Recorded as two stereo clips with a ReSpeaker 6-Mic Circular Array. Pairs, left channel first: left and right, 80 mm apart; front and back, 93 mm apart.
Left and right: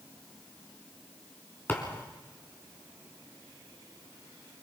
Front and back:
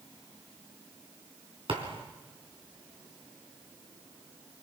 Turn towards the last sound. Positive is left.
turn(degrees=155)